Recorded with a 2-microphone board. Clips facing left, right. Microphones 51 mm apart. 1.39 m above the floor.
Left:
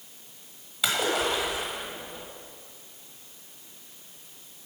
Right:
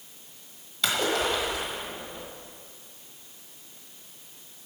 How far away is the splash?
About 1.3 m.